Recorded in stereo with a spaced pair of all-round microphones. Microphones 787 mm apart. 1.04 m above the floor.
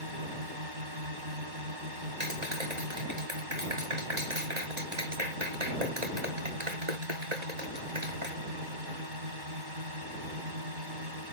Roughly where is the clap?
Right.